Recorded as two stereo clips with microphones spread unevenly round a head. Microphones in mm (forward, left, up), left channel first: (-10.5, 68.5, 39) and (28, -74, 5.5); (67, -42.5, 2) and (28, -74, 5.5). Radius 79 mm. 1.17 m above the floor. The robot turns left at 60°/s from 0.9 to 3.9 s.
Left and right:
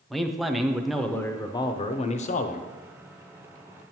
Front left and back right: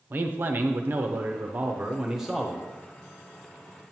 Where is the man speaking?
150° right, 0.6 m; by 2.7 s 105° left, 0.6 m.